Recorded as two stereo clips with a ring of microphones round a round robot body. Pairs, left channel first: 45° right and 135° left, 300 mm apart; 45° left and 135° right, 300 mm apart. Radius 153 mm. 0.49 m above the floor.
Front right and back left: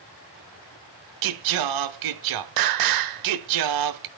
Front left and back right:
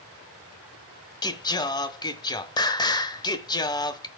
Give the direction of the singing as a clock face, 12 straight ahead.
8 o'clock.